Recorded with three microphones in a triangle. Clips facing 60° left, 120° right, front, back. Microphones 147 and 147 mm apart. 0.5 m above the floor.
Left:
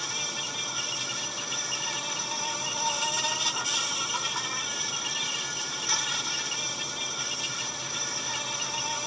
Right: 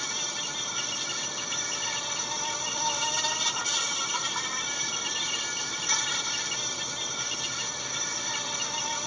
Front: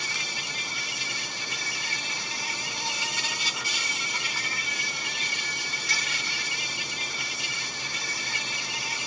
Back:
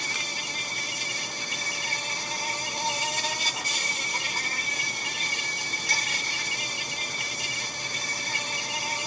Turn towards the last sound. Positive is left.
turn(degrees=145)